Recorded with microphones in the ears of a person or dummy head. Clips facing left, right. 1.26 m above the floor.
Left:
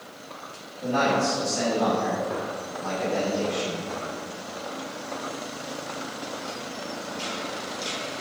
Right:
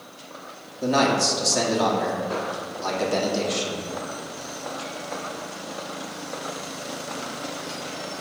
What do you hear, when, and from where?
0.8 s a man speaking: 75° right (ahead or behind), 1.9 m